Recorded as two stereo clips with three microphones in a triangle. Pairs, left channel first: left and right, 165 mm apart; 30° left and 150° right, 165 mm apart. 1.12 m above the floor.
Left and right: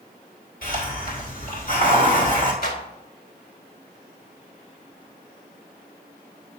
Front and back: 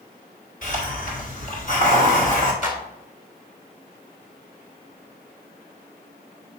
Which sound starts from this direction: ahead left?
A hiss, at 0.6 s.